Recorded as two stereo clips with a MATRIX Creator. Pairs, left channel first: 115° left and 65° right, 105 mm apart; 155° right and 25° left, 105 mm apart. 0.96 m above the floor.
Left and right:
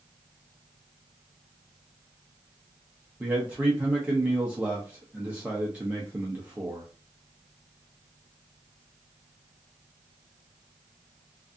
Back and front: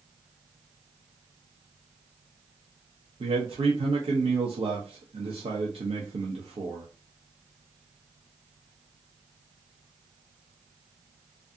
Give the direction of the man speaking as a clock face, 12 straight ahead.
12 o'clock.